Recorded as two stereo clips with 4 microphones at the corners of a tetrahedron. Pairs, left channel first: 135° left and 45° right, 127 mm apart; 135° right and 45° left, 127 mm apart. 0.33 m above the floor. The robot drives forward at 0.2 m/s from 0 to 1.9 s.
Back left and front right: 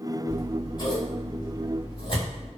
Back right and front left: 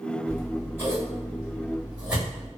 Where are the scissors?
100° left, 1.1 m; by 2.5 s 120° left, 1.1 m.